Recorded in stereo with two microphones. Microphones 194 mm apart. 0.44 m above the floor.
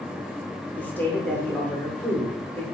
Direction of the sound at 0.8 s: 10° left (ahead or behind).